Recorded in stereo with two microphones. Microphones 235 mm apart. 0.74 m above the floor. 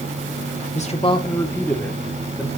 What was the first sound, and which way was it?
A man speaking, 30° left (ahead or behind).